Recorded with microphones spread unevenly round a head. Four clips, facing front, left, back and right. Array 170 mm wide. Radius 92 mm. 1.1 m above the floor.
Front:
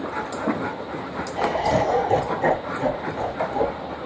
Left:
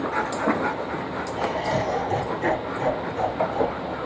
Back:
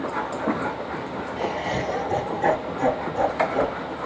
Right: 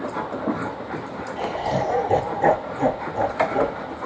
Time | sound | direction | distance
1.4 | laughter | 5° right | 0.8 m